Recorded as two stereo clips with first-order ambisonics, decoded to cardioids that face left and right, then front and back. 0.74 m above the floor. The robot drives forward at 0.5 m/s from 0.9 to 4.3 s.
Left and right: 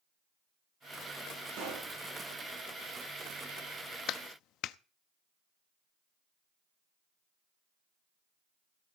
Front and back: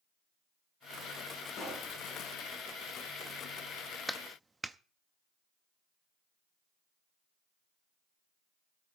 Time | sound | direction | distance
1.5 | a pop | 50° right | 6 m
4.1 | a clap | 85° left | 0.6 m